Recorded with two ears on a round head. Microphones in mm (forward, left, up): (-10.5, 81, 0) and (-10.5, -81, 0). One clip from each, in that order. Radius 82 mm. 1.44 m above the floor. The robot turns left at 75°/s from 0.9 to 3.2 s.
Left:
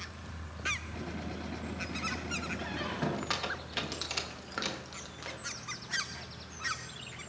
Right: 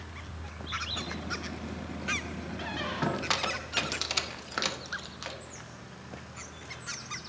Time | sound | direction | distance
2.6 | a squeak | 10° right (ahead or behind) | 0.7 m